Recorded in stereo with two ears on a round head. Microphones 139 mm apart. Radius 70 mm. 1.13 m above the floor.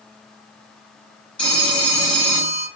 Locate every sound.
1.4 s a phone ringing: 5° left (ahead or behind), 0.8 m